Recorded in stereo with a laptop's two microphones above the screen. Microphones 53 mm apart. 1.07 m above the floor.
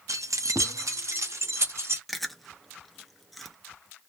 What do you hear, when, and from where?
0.1 s keys jangling: 80° right, 0.6 m; by 2.0 s 55° right (ahead or behind), 1.7 m
2.1 s chewing: centre (ahead or behind), 0.5 m